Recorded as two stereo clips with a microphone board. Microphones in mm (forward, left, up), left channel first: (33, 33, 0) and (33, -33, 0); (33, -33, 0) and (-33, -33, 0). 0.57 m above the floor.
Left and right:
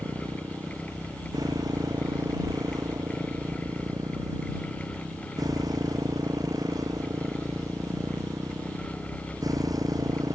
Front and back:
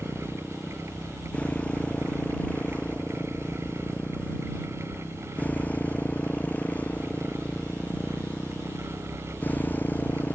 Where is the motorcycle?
75° right; by 10.3 s 65° right.